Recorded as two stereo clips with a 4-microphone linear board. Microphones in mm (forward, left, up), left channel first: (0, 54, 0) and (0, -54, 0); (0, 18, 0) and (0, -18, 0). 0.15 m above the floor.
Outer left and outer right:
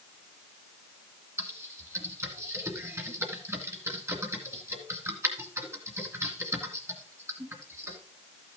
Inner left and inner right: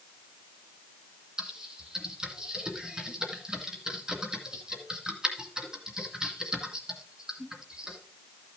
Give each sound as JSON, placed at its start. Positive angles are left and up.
{"t": 1.4, "sound": "typing on a keyboard", "side_deg": -25, "distance_m": 1.9}